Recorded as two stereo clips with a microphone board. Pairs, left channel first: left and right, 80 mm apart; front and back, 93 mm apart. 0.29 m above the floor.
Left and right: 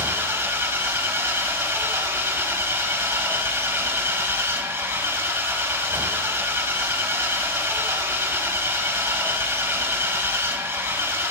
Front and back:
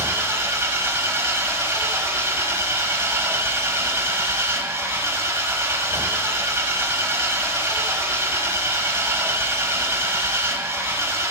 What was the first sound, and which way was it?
An engine running, 135° right.